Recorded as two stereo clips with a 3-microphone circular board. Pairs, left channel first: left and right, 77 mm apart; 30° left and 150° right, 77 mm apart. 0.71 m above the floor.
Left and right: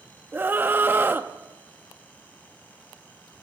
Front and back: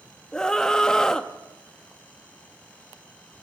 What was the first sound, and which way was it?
A scream, 45° right.